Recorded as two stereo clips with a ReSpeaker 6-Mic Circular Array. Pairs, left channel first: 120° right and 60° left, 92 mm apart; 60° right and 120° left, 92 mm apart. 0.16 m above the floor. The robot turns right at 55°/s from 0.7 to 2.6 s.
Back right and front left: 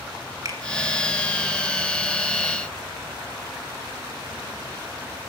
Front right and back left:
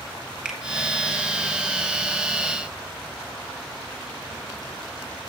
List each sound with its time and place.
0.5 s a finger snap: 45° left, 1.2 m